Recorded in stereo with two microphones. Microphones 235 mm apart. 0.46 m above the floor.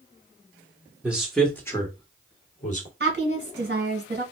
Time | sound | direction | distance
1.0 | a man speaking | 5° right (ahead or behind) | 1.0 m
3.0 | a woman speaking | 45° right (ahead or behind) | 2.0 m